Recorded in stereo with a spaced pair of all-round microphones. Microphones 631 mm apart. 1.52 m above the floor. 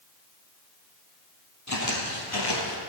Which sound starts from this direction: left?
Footsteps, at 1.7 s.